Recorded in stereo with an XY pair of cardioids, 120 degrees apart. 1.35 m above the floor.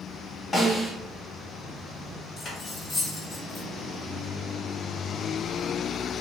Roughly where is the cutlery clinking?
Ahead left.